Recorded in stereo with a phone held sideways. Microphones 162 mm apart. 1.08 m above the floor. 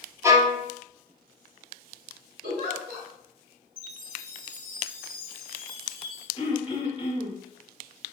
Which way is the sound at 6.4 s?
30° left (ahead or behind).